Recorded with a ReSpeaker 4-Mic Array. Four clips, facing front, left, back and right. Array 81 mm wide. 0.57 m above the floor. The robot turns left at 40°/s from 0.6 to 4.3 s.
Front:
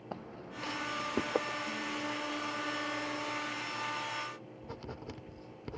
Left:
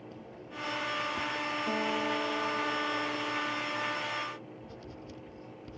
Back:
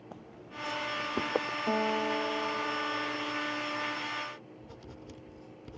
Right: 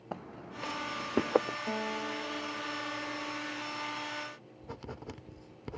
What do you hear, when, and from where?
0.1 s footsteps: 65° right; by 1.6 s 100° right
1.7 s a guitar: straight behind; by 3.5 s 105° left
4.6 s writing: 55° right